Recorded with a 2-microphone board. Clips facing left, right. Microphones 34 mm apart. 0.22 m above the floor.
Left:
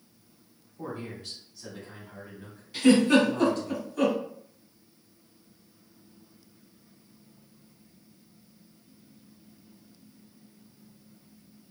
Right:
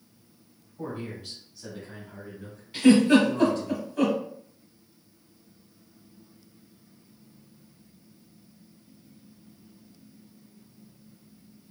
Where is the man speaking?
25° right (ahead or behind), 1.7 m; by 3.7 s 20° left (ahead or behind), 1.9 m.